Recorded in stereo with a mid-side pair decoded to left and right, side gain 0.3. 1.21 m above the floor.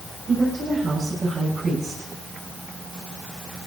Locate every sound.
0.3 s a woman speaking: 65° right, 6.5 m